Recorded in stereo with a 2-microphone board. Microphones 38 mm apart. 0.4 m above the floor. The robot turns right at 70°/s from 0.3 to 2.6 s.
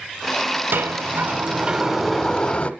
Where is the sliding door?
95° right, 1.0 m; by 2.7 s 35° left, 1.0 m.